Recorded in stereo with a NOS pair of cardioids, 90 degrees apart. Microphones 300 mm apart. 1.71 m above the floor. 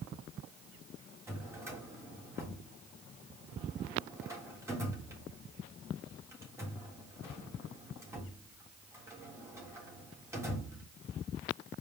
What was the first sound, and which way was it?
A drawer, 10° right.